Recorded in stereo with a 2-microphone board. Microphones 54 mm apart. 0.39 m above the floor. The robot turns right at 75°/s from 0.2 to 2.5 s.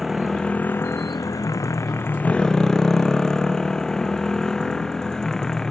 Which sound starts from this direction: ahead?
A motorcycle, at 0.0 s.